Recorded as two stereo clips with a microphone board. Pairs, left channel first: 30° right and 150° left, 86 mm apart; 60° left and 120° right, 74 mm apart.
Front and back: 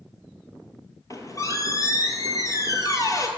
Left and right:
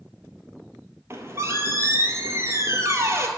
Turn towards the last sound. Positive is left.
turn(degrees=-75)